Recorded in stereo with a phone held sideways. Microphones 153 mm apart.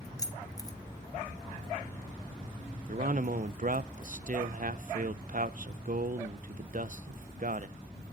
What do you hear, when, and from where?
0.2 s keys jangling: 20° left (ahead or behind), 1.2 m
2.9 s a man speaking: 60° right (ahead or behind), 0.5 m